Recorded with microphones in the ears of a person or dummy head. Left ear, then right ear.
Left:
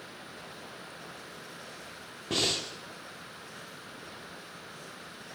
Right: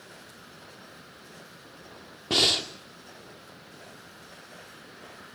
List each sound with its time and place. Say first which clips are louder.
2.3 s breathing: right 6 dB; 25° right (ahead or behind), 1.7 m